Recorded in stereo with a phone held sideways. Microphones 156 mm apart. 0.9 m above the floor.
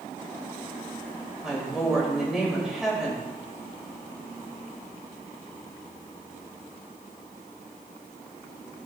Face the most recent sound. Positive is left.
turn(degrees=-5)  # may be behind; listen again after turning